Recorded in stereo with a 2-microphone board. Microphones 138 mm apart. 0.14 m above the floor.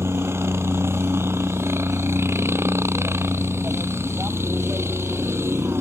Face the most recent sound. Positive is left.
turn(degrees=-15)  # may be behind; listen again after turning